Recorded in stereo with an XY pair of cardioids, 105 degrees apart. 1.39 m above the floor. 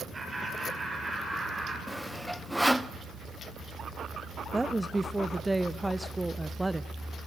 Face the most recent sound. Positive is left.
turn(degrees=-10)